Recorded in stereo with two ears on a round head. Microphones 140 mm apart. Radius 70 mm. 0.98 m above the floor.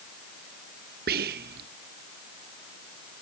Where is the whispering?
65° right (ahead or behind), 0.9 m.